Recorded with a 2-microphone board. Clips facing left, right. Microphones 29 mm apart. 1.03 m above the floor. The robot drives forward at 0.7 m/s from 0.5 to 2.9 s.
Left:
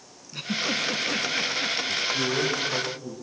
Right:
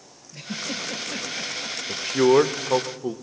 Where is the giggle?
65° left (ahead or behind), 2 m; by 1.8 s 50° left (ahead or behind), 2.5 m.